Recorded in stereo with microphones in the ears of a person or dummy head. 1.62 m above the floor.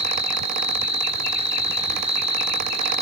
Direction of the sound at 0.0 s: 35° right (ahead or behind).